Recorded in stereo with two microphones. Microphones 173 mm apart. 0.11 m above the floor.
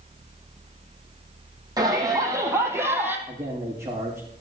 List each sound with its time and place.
1.8 s a shout: 20° right (ahead or behind), 3.5 m; by 3.2 s 10° right (ahead or behind), 3 m
3.3 s a man speaking: 20° right (ahead or behind), 6 m